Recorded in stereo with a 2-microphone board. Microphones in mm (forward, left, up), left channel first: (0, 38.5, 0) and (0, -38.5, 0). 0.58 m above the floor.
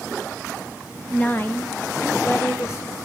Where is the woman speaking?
20° left (ahead or behind), 0.9 m; by 3.0 s 40° left (ahead or behind), 2.0 m.